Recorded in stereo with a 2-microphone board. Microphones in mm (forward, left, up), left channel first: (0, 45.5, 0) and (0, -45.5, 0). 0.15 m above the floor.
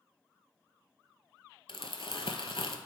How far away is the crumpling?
About 0.7 m.